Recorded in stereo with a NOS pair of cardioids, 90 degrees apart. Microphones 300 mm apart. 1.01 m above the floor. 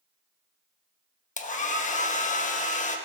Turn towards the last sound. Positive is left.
turn(degrees=25)